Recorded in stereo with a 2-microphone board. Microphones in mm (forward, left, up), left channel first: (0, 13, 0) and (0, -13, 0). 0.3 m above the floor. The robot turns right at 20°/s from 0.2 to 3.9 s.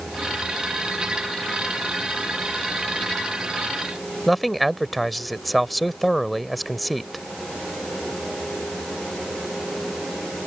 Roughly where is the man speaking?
Centre.